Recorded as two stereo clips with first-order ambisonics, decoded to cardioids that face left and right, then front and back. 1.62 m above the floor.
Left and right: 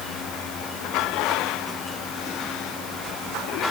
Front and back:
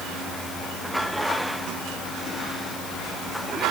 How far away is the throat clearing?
I don't hear throat clearing.